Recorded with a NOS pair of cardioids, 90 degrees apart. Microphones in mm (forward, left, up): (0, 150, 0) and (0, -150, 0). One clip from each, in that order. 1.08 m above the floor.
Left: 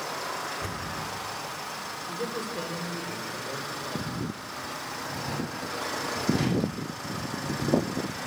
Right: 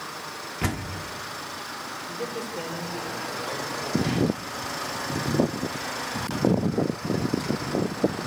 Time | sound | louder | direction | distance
0.6 | a door slam | right 3 dB | 70° right | 1.4 m
2.1 | a man speaking | even | 5° right | 4 m